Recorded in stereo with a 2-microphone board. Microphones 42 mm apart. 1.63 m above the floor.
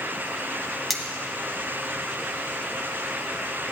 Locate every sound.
0.9 s cutlery clinking: centre (ahead or behind), 1.2 m